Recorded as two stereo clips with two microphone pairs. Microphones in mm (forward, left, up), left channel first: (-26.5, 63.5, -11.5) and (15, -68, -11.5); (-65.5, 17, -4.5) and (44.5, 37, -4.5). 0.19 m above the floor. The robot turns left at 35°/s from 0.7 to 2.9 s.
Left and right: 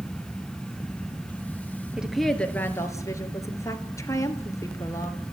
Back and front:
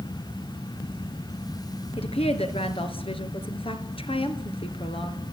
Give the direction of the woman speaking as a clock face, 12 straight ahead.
5 o'clock.